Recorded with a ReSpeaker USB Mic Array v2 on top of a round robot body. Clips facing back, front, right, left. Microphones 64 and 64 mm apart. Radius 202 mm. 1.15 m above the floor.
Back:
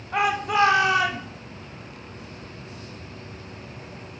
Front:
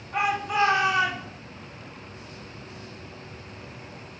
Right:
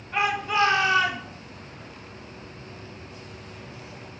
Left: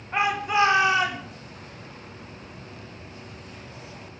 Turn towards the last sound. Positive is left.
turn(degrees=165)